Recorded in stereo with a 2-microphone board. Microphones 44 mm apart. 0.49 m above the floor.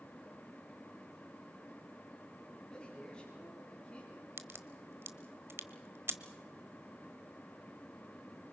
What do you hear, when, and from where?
2.7 s a man speaking: 20° left (ahead or behind), 5.5 m; by 4.3 s 25° left (ahead or behind), 6 m
4.4 s a crack: 70° right (ahead or behind), 1.2 m